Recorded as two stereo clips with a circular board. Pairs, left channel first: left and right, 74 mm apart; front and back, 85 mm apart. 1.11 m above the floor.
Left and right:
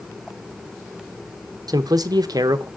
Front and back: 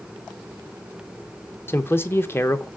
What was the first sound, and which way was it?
A man speaking, 65° right.